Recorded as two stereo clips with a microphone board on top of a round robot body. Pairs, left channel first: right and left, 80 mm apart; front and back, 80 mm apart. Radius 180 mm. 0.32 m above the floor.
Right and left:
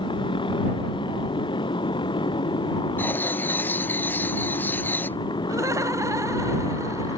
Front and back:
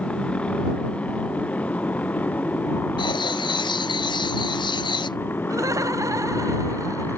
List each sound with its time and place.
0.0 s a motorcycle: 75° right; by 7.2 s 65° right
3.0 s writing: 25° right
5.5 s laughter: 135° left